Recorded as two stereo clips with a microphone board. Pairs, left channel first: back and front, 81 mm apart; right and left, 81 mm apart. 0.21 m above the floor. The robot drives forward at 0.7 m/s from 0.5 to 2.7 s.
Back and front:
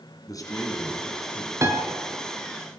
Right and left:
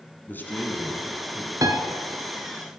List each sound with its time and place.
0.3 s a man speaking: 150° right, 2.0 m; by 1.5 s 160° right, 2.5 m
1.6 s a piano: 50° left, 1.1 m; by 1.8 s 55° left, 1.0 m